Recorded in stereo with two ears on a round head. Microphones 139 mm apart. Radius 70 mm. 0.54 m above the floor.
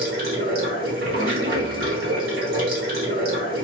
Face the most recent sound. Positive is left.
turn(degrees=-65)  # may be behind; listen again after turning